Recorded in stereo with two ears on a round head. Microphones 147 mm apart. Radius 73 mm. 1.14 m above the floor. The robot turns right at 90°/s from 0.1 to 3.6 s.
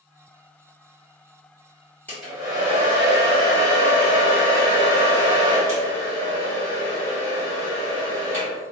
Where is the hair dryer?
170° left, 1.4 m; by 8.6 s 55° right, 1.4 m.